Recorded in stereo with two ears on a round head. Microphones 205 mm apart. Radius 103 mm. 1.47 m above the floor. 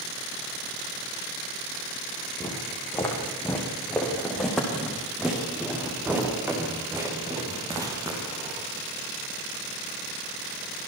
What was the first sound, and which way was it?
Footsteps, 15° left (ahead or behind).